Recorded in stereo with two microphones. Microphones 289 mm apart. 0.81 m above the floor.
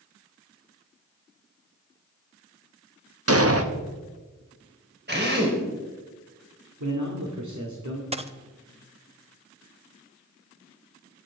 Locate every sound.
3.3 s an explosion: 50° right (ahead or behind), 1.1 m
5.1 s a drill: 35° right (ahead or behind), 3.5 m
6.8 s a man speaking: 75° right (ahead or behind), 2 m
8.1 s a dropped coin: 20° right (ahead or behind), 0.7 m